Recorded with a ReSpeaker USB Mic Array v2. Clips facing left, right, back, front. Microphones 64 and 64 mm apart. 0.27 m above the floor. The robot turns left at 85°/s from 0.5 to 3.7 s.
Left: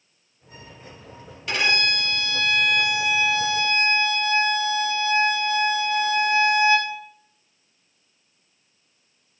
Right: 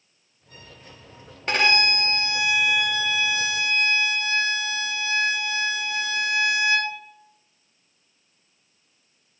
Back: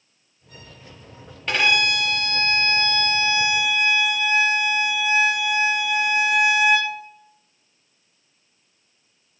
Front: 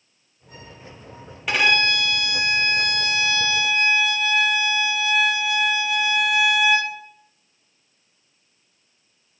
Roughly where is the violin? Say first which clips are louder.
Right 2 dB, front 1 dB; right.